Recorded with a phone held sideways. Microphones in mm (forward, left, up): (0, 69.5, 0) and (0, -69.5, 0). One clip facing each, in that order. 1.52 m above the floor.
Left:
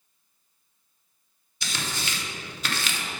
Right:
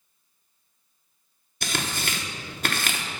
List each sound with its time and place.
1.6 s tearing paper: 55° right (ahead or behind), 1.0 m